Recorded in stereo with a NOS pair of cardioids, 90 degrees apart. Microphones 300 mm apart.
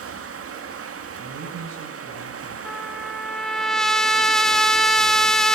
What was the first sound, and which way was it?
Running water, 50° right.